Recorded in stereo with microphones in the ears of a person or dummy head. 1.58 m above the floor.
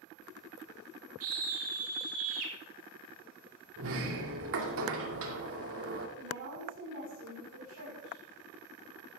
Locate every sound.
1.2 s a scream: 80° right, 4 m; by 2.5 s 75° right (ahead or behind), 4.5 m
3.8 s a sliding door: 70° right (ahead or behind), 2 m
6.2 s a woman speaking: 65° right (ahead or behind), 5 m